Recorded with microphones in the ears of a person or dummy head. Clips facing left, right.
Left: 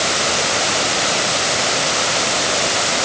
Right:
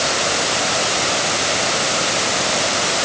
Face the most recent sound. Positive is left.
No sound to turn to.